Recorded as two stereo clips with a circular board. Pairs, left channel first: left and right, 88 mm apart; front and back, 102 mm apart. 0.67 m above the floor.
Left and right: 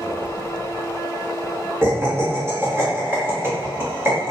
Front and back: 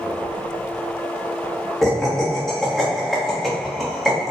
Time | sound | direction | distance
1.8 | laughter | 80° right | 1.0 m